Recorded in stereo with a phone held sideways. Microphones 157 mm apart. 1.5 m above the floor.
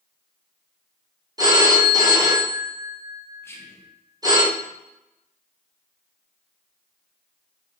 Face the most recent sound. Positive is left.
turn(degrees=15)  # may be behind; listen again after turning